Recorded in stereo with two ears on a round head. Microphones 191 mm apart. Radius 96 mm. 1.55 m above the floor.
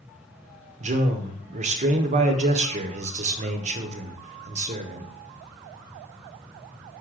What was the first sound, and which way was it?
A man speaking, 35° right (ahead or behind).